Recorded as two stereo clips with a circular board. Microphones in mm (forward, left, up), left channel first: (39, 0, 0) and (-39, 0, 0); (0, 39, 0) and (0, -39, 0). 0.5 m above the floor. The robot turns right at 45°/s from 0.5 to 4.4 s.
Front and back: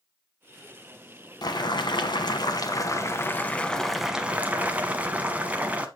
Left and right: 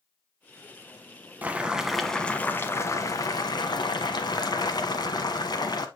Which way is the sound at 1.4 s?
25° right.